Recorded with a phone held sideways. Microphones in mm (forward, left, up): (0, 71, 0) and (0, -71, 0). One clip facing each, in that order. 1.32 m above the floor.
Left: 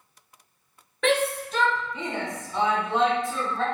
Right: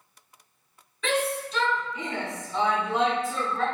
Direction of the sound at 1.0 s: 55° left (ahead or behind).